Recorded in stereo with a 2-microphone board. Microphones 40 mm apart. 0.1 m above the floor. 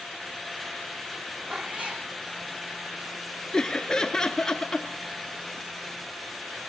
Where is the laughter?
15° left (ahead or behind), 1.4 m.